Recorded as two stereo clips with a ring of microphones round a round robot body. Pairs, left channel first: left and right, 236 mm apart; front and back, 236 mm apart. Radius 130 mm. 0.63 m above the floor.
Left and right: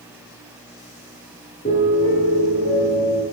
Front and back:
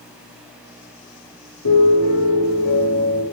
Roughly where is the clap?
No clap in this recording.